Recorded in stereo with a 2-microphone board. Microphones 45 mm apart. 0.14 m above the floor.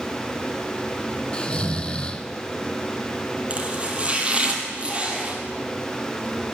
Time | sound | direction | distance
1.3 | snoring | 25° left (ahead or behind) | 0.6 m
3.5 | chopping | 30° right (ahead or behind) | 1.9 m